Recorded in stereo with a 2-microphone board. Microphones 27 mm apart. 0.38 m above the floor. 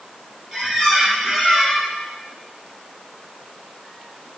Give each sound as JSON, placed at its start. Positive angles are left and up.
{"t": 0.5, "sound": "a squeak", "side_deg": -15, "distance_m": 3.0}